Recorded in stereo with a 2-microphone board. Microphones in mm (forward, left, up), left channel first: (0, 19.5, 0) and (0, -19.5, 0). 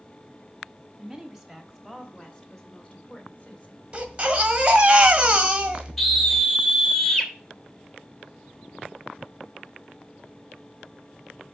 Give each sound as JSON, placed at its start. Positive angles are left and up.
{"t": 1.0, "sound": "a woman speaking", "side_deg": -5, "distance_m": 1.2}
{"t": 3.9, "sound": "a baby crying", "side_deg": -30, "distance_m": 1.7}
{"t": 6.0, "sound": "a scream", "side_deg": 5, "distance_m": 2.5}